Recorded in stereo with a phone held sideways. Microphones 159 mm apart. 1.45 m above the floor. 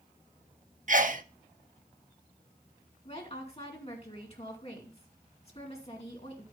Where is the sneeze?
55° right (ahead or behind), 0.8 m.